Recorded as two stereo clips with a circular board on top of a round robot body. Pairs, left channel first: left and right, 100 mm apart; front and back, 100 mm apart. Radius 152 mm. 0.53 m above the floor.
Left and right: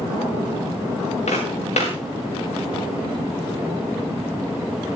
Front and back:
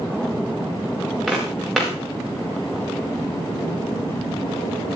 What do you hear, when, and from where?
1.3 s footsteps: 90° left, 4 m